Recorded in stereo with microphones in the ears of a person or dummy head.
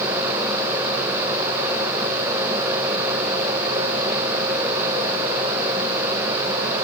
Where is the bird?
No bird in this recording.